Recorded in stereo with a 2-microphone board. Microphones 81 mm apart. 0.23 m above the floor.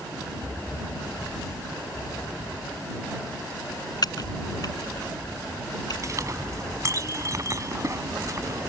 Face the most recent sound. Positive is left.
turn(degrees=-45)  # may be behind; listen again after turning